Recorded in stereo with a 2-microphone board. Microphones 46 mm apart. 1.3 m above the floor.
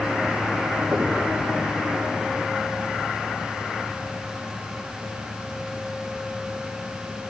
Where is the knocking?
65° right (ahead or behind), 1.9 m.